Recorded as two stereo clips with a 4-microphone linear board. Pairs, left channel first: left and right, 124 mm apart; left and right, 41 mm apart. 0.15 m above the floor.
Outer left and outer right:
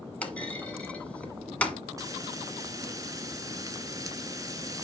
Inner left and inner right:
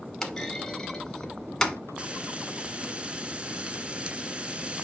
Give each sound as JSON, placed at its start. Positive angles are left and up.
{"t": 0.2, "sound": "a clunk", "side_deg": 10, "distance_m": 1.4}
{"t": 2.0, "sound": "frying", "side_deg": -30, "distance_m": 1.0}